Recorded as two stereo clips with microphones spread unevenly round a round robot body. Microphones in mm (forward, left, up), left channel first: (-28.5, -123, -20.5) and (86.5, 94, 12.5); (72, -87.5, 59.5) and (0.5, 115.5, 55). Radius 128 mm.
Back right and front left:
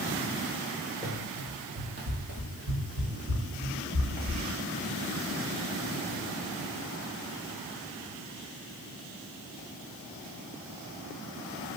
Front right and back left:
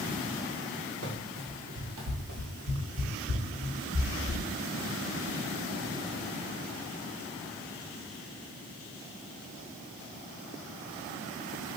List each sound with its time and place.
1.0 s running footsteps: 130° left, 1.0 m; by 4.4 s 50° left, 1.9 m